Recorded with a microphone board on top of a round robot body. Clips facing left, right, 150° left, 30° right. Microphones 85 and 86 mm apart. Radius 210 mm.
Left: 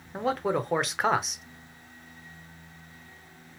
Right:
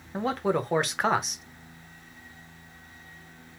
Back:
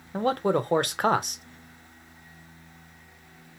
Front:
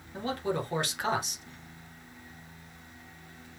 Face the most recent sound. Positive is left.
turn(degrees=180)